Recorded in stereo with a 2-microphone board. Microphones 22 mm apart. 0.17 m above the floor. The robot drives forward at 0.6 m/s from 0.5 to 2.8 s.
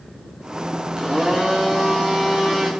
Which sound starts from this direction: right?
A blender, at 1.0 s.